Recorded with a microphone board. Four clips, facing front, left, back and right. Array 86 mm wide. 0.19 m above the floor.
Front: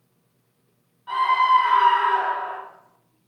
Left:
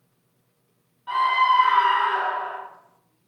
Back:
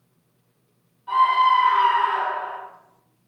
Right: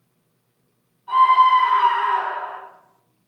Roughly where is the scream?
Left.